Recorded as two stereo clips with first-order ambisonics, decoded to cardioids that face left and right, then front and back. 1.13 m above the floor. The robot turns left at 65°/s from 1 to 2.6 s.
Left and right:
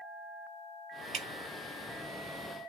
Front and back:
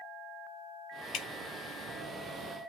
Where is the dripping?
40° right, 0.7 m; by 1.3 s 50° right, 0.7 m.